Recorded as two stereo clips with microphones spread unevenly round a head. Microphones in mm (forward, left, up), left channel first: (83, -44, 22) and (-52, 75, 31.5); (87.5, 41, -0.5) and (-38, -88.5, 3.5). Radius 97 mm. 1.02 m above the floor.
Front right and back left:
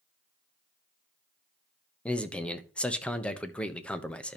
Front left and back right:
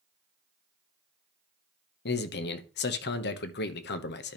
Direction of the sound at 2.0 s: 40° left.